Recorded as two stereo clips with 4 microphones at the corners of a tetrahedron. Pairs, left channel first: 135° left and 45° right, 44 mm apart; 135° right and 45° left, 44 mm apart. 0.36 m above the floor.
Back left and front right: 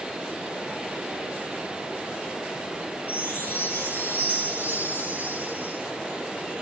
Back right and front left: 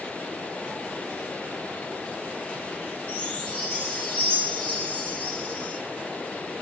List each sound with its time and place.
3.1 s a chime: 170° left, 4.5 m